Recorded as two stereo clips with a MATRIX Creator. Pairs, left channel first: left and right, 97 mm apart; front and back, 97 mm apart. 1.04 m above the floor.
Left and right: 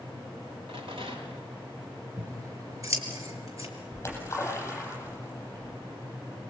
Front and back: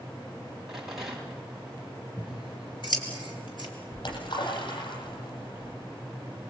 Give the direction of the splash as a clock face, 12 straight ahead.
11 o'clock.